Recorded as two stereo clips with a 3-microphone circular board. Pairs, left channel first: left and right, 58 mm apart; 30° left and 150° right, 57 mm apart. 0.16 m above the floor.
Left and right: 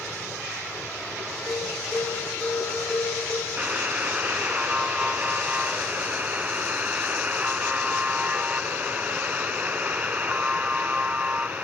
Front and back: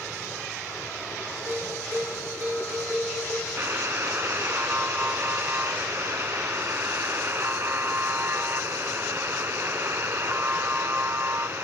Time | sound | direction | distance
1.5 | a bell | 165° left | 3 m
3.6 | a buzzer | 140° right | 0.8 m